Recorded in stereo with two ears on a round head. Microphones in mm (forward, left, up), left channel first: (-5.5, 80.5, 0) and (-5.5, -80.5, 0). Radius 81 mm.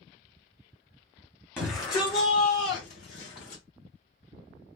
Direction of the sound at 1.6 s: 10° left (ahead or behind).